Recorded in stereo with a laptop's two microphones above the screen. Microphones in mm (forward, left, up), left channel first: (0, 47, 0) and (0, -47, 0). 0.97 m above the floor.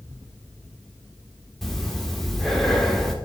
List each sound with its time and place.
1.6 s breathing: 5° left (ahead or behind), 1.8 m